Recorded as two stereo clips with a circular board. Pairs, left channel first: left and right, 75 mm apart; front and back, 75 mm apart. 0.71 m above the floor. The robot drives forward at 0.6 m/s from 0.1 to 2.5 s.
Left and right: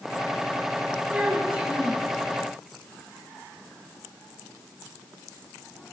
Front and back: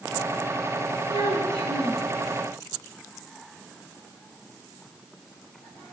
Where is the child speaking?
160° right, 6 m; by 2.0 s 165° right, 6.5 m.